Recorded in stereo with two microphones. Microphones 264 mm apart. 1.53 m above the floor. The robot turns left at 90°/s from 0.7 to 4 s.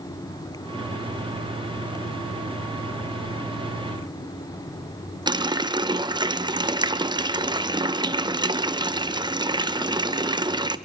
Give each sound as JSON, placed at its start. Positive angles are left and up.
{"t": 5.3, "sound": "a running tap", "side_deg": -15, "distance_m": 0.6}